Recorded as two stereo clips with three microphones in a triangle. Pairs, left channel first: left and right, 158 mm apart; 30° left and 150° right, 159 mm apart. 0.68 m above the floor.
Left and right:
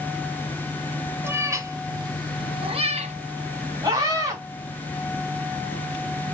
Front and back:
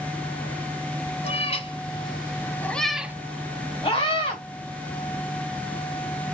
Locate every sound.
1.2 s a cat meowing: 15° right, 1.4 m; by 3.1 s 75° right, 0.7 m
3.8 s a scream: 20° right, 4 m